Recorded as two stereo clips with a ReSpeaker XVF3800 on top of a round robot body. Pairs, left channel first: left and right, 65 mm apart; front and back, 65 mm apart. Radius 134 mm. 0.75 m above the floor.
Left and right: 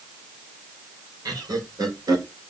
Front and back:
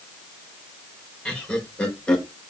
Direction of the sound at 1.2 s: 75° right.